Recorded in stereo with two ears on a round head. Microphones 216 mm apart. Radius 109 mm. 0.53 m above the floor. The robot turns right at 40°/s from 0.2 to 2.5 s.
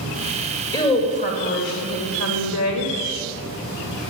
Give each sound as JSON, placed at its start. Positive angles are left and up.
{"t": 0.7, "sound": "a woman speaking", "azimuth_deg": 20, "distance_m": 2.0}